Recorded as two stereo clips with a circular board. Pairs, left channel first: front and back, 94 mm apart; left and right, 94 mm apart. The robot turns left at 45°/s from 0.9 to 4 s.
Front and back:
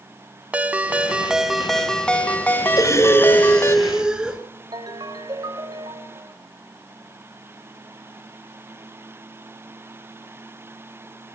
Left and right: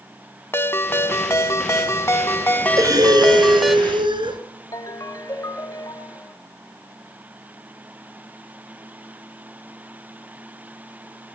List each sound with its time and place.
0.5 s a ringtone: 120° left, 0.8 m; by 3.8 s 5° right, 0.8 m
2.8 s breathing: 45° right, 2 m; by 4.4 s 100° right, 2 m
4.7 s a ringtone: 140° left, 1.1 m